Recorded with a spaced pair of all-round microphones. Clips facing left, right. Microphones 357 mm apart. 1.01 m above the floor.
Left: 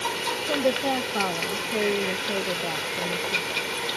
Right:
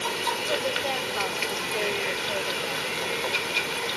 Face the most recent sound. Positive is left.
turn(degrees=55)  # may be behind; listen again after turning